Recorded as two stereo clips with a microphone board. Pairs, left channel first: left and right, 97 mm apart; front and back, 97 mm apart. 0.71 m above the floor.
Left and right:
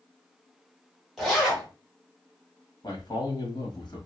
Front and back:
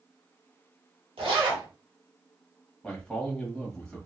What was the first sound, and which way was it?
A zipper, straight behind.